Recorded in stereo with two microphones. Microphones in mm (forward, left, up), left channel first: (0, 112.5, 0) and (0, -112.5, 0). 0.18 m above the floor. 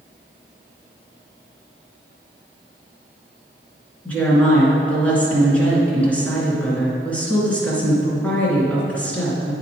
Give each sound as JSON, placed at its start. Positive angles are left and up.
{"t": 4.0, "sound": "a woman speaking", "side_deg": 5, "distance_m": 2.5}